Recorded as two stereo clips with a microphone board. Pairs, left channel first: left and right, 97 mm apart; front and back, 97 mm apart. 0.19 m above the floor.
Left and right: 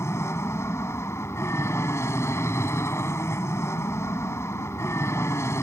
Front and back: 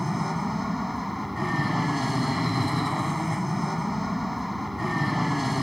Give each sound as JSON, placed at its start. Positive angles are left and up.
{"t": 0.0, "sound": "an aircraft", "azimuth_deg": 90}